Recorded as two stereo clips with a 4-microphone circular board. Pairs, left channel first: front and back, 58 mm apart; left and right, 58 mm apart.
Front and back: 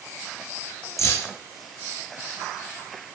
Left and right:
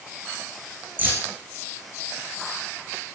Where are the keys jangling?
30° right, 6.5 m.